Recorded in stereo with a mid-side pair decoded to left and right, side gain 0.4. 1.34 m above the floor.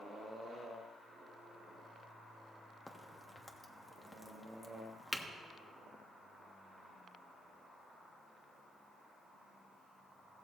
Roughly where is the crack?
Ahead.